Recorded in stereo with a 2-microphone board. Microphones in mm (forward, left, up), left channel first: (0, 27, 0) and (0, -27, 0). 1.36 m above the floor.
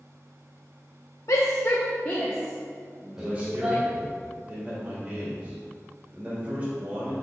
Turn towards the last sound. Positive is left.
turn(degrees=-25)  # may be behind; listen again after turning